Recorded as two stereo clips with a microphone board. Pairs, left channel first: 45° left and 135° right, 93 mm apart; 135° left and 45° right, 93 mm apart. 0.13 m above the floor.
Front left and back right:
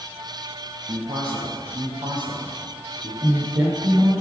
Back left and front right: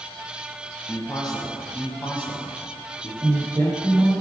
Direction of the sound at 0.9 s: 135° right.